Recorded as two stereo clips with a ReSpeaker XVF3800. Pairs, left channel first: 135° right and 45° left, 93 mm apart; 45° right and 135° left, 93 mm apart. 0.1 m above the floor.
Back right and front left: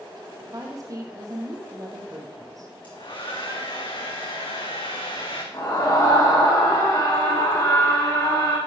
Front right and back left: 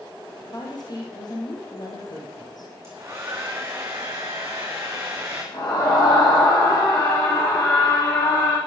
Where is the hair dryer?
165° right, 3 m.